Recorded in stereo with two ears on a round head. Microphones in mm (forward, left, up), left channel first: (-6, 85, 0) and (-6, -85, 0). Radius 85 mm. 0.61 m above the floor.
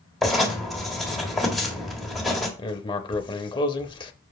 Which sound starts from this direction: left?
Writing, at 2.6 s.